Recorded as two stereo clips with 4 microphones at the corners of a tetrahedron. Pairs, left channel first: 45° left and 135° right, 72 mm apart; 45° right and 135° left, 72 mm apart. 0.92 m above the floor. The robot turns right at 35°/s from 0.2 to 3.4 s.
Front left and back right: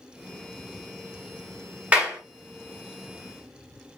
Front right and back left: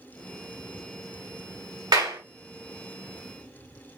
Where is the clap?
155° left, 1.9 m; by 2.2 s 160° left, 1.9 m.